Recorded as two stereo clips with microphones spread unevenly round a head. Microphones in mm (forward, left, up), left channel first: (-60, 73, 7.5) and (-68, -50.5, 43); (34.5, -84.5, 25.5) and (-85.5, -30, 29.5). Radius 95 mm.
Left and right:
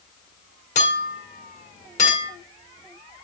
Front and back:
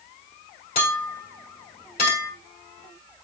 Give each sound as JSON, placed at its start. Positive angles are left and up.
{"t": 0.8, "sound": "a clink", "azimuth_deg": 35, "distance_m": 1.7}